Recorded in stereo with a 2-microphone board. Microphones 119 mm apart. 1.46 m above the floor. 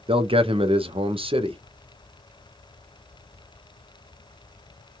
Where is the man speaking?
55° right (ahead or behind), 0.5 m.